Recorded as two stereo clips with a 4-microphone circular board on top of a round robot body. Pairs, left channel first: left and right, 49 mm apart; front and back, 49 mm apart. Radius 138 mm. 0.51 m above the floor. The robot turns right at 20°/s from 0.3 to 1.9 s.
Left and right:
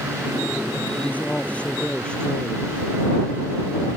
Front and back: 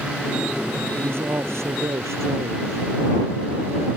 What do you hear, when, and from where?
0.9 s a man speaking: 145° left; by 4.0 s 165° left